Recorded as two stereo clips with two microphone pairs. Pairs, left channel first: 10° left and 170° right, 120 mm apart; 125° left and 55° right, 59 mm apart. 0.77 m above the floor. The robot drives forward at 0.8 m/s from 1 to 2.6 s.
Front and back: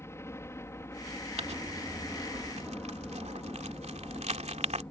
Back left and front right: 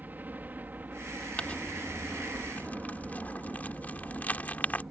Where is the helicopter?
35° right; by 4.9 s 40° right.